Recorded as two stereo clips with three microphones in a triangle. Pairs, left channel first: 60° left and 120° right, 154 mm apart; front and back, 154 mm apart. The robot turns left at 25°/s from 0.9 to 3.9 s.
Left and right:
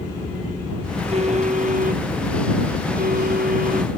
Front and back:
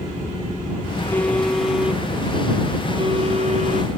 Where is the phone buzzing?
75° right; by 4.0 s 145° right.